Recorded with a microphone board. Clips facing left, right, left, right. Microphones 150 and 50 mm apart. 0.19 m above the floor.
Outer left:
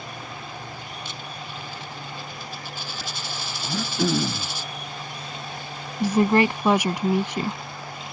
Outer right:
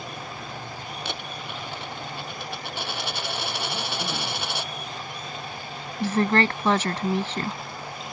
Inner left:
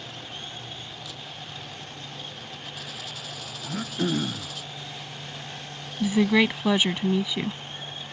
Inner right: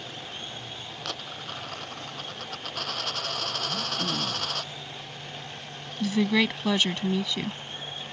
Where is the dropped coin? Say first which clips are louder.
Outer right 2 dB, inner right 3 dB; 80° right.